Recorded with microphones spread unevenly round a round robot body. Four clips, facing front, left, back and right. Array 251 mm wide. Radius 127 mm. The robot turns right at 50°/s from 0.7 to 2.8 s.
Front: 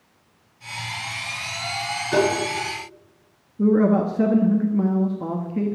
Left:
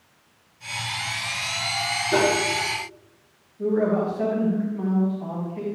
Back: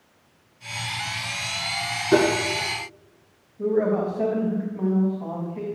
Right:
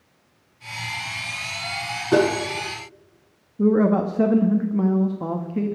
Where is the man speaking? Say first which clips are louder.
Right 4 dB, front 4 dB; 50° right, 1.0 m.